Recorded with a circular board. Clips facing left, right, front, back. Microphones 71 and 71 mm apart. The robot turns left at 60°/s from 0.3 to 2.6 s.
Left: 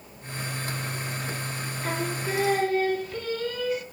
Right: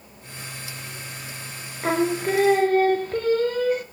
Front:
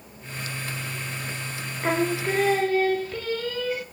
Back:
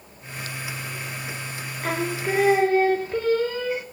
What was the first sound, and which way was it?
Singing, 75° right.